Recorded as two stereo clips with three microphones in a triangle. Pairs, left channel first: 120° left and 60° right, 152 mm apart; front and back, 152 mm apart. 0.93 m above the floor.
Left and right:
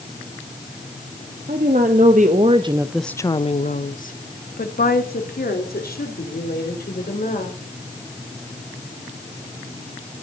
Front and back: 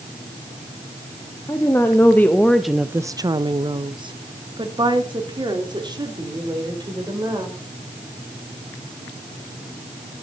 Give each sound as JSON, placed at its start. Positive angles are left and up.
{"t": 1.5, "sound": "a woman speaking", "azimuth_deg": -70, "distance_m": 1.5}